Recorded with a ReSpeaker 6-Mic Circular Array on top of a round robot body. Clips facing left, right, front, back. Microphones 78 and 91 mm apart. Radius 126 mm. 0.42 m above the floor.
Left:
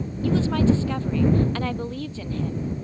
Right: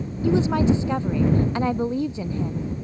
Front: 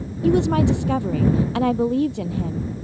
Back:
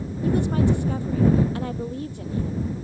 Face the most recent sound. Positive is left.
turn(degrees=-15)